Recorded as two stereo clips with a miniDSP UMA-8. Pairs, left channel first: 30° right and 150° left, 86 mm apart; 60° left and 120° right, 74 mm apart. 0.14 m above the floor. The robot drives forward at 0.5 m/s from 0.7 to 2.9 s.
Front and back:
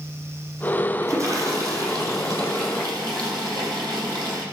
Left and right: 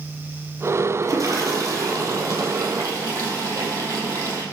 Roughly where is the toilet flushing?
Behind.